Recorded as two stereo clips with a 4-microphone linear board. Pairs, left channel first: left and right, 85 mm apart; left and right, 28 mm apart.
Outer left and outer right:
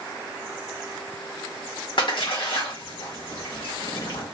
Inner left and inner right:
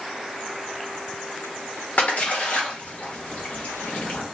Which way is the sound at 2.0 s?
65° left (ahead or behind).